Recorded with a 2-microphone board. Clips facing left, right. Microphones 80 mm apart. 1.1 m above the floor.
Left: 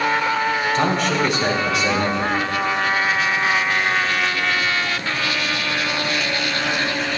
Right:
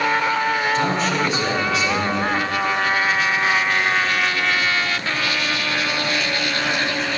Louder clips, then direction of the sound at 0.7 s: Left 1 dB; 70° left (ahead or behind).